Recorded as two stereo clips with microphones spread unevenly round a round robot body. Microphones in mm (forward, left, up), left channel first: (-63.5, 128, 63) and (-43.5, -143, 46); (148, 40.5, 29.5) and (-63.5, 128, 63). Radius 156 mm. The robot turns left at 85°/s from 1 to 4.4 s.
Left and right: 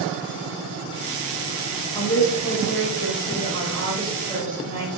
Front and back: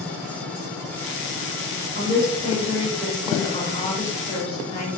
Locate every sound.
1.9 s a woman speaking: 155° left, 1.0 m; by 4.9 s 55° right, 1.0 m